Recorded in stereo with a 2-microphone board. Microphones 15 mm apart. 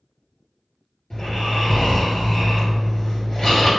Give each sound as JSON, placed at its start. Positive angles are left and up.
{"t": 1.1, "sound": "snoring", "side_deg": 45, "distance_m": 1.9}